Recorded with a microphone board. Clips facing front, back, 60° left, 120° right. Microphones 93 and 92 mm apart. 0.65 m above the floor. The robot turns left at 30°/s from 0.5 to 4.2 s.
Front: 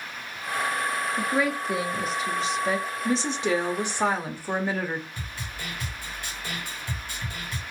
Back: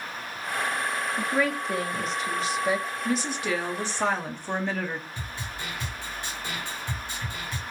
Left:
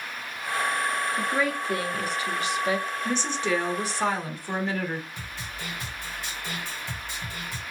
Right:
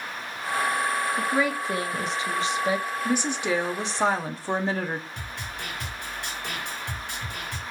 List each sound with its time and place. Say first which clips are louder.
1.2 s a woman speaking: even, right 1 dB; 55° right, 1.0 m; by 2.9 s 105° right, 1.0 m
3.0 s a woman speaking: front 3 dB, right 2 dB; 40° right, 0.8 m; by 5.1 s 75° right, 0.8 m
5.2 s a snare drum: back 1 dB, right 2 dB; 115° right, 2 m